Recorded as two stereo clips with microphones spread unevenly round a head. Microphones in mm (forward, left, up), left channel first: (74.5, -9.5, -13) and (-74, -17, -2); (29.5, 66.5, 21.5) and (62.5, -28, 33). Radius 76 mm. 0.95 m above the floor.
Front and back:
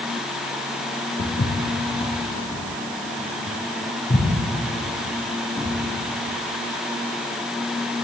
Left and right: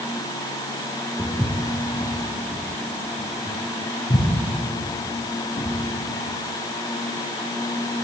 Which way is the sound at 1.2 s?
5° right.